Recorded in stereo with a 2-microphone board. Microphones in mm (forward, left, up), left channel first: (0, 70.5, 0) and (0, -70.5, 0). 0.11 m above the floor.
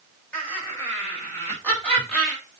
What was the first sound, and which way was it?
Laughter, 10° left (ahead or behind).